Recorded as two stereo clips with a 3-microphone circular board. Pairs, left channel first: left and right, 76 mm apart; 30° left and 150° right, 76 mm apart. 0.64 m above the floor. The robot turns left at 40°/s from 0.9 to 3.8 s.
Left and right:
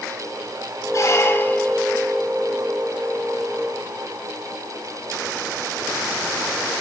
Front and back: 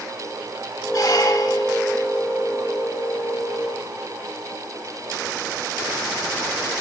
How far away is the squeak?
About 0.9 m.